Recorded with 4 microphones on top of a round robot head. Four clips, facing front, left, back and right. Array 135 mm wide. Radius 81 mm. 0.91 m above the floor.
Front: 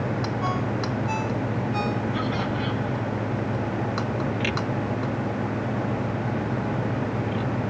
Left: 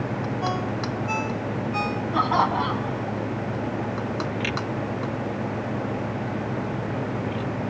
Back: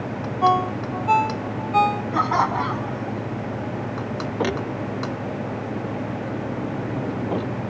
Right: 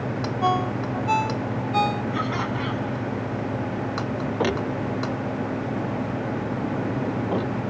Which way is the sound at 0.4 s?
160° right.